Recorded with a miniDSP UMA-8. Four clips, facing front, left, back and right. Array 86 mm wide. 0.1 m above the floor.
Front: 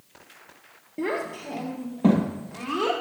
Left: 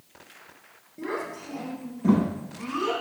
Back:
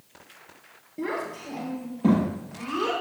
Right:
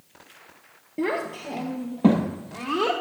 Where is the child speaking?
65° right, 1.8 m; by 2.9 s 70° right, 3 m.